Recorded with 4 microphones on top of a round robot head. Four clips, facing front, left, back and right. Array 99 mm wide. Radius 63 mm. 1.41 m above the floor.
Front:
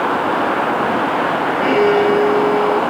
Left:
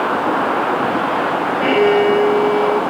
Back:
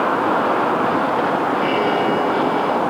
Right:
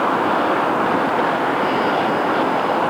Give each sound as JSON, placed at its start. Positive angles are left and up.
{"t": 1.6, "sound": "a violin", "azimuth_deg": 55}